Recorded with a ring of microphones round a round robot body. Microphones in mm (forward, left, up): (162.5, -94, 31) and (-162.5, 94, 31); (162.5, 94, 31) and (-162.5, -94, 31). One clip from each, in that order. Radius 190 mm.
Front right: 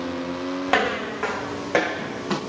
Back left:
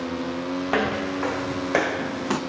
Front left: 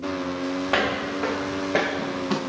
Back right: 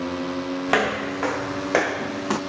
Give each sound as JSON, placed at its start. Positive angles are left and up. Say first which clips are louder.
{"t": 0.7, "sound": "footsteps", "louder": "front right 3 dB, back right 2 dB", "azimuth_deg": -90, "distance_m": 2.0}